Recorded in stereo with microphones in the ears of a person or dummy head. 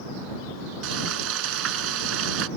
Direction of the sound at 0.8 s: 80° right.